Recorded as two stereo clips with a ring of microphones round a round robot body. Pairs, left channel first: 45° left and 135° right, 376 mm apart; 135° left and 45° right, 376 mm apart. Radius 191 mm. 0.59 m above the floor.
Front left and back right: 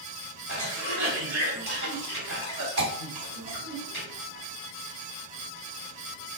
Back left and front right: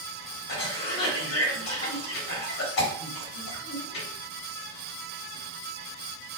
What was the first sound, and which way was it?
A cough, 170° right.